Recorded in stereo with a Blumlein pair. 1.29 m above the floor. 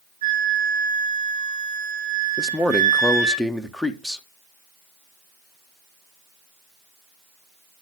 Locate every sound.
0.2 s a flute: 65° right, 5.5 m
2.4 s a man speaking: straight ahead, 1.3 m